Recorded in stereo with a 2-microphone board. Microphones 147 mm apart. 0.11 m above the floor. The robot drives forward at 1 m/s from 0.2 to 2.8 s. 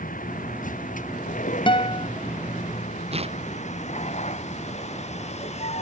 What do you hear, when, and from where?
0.0 s a vehicle: 65° left (ahead or behind); by 5.8 s 45° left (ahead or behind)
1.7 s a guitar: 35° left (ahead or behind); by 2.1 s 40° left (ahead or behind)
3.1 s tearing paper: 45° right (ahead or behind)